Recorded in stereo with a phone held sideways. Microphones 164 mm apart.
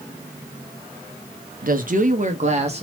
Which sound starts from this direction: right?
A woman speaking, at 1.6 s.